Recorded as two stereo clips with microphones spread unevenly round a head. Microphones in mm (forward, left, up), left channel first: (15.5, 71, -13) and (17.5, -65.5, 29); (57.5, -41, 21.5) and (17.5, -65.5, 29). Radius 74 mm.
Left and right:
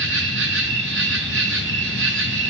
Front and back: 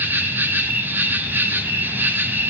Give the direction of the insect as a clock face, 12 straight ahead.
3 o'clock.